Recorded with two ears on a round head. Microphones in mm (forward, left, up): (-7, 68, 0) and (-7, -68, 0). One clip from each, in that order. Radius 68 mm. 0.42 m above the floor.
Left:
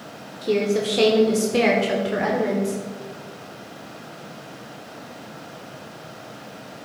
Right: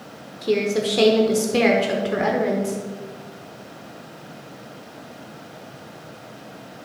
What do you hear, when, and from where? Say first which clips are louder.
0.4 s a woman speaking: even; 10° right (ahead or behind), 0.8 m